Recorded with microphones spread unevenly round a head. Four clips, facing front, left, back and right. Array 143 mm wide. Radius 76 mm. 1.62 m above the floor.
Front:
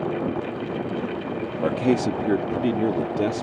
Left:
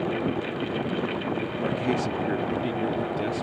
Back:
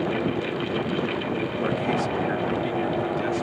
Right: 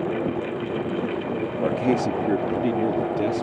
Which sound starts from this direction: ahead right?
A man speaking, at 1.6 s.